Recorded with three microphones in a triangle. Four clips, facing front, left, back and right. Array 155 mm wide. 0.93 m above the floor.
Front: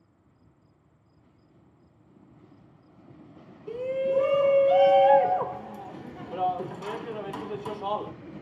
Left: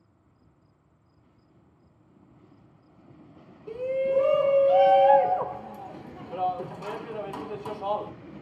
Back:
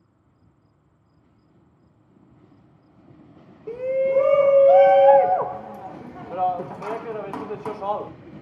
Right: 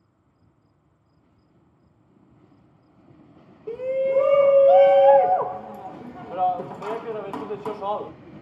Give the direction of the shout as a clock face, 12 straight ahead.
5 o'clock.